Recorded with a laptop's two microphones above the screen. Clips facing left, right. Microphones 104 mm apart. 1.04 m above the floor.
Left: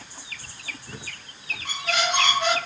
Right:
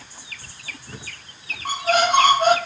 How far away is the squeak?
About 0.6 m.